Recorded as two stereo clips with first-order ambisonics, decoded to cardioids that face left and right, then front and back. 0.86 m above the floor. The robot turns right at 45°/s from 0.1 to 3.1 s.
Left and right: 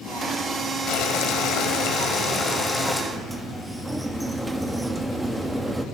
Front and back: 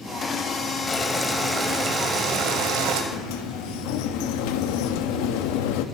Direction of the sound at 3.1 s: 5° right.